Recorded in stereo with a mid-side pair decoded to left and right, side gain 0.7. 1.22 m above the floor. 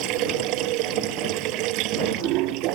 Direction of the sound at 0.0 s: 65° right.